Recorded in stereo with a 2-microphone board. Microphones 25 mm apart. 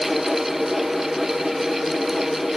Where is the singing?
No singing in this recording.